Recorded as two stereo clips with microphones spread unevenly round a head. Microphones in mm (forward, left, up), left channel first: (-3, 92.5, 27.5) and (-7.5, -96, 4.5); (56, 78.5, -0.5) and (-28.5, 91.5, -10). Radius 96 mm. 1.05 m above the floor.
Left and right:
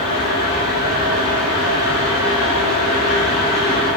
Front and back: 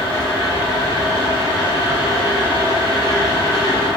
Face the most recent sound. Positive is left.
turn(degrees=-15)